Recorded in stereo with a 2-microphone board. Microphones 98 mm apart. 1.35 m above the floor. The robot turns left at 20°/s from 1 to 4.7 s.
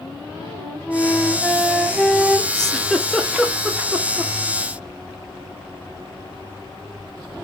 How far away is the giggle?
About 0.6 m.